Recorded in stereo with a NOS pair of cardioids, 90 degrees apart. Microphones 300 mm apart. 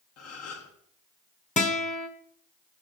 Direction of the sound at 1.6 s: 25° left.